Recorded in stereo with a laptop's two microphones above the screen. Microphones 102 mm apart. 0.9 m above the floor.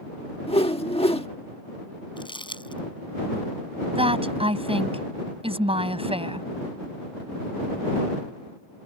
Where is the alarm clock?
No alarm clock in this recording.